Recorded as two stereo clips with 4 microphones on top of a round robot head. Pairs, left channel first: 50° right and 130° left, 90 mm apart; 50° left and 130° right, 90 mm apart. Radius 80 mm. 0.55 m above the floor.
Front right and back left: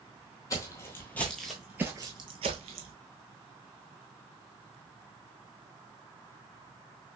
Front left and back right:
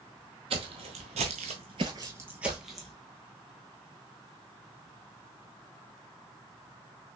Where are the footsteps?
105° right, 1.1 m; by 2.9 s 135° left, 1.0 m.